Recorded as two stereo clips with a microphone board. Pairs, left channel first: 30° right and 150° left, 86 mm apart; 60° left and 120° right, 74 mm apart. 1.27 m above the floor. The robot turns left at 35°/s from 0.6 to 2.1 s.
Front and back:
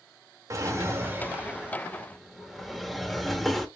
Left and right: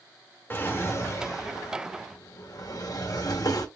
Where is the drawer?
110° left, 0.9 m; by 3.7 s 60° left, 0.9 m.